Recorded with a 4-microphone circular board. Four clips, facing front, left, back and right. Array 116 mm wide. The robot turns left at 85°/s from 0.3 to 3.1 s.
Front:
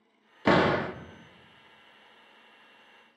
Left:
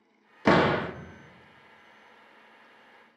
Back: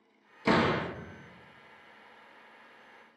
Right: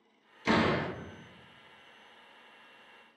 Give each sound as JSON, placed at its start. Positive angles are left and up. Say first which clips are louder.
{"t": 0.5, "sound": "a door slam", "louder": "left 6 dB, front 3 dB", "azimuth_deg": 60, "distance_m": 0.7}